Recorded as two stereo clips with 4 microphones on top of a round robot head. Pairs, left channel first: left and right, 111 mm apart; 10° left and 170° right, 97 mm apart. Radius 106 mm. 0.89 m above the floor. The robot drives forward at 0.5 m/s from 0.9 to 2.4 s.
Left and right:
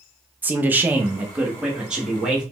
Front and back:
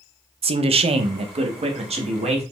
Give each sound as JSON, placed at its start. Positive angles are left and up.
{"t": 0.4, "sound": "a man speaking", "azimuth_deg": -165, "distance_m": 0.5}